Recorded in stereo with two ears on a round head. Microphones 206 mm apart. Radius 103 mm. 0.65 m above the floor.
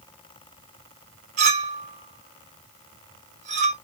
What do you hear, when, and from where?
1.4 s a clink: 30° right (ahead or behind), 1.0 m